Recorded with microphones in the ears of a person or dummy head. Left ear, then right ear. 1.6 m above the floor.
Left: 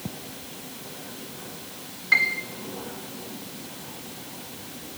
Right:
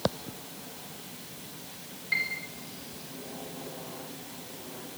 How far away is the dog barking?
No dog barking in this recording.